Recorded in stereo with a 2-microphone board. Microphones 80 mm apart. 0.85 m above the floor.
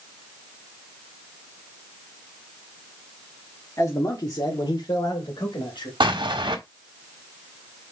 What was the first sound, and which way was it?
A man speaking, 40° left (ahead or behind).